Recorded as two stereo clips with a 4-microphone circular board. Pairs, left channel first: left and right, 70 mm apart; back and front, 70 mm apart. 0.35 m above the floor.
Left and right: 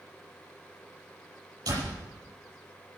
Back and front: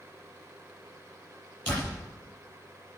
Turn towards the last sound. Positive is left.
turn(degrees=-120)